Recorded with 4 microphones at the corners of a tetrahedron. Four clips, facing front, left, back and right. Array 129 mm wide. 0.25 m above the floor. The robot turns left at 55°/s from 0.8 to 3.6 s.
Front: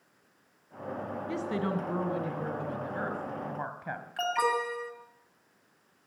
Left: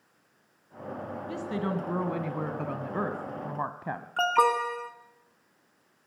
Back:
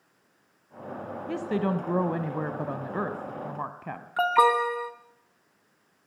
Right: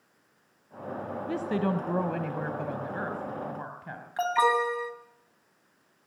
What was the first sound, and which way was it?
A woman speaking, 120° right.